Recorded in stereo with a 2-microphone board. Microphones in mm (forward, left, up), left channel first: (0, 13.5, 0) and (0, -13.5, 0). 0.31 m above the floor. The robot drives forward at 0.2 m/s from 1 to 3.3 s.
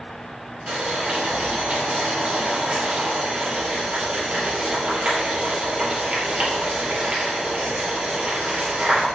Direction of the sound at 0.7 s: 70° right (ahead or behind).